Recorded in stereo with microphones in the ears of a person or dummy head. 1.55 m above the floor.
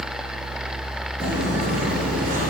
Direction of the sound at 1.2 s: 35° right (ahead or behind).